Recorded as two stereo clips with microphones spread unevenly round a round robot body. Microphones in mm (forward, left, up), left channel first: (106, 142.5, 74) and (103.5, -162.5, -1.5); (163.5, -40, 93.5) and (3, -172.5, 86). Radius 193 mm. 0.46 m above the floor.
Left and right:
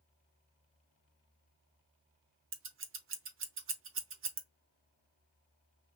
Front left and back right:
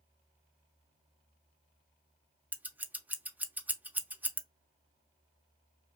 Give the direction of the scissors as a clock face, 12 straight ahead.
2 o'clock.